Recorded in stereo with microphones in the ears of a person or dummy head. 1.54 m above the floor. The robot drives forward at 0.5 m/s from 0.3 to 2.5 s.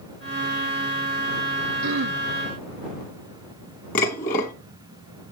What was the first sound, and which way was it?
Throat clearing, 85° right.